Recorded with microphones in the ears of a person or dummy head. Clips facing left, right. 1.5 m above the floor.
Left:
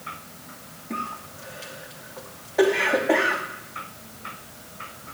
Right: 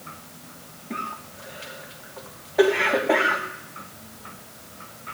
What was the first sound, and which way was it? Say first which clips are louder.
A cough: left 1 dB; 5° left (ahead or behind).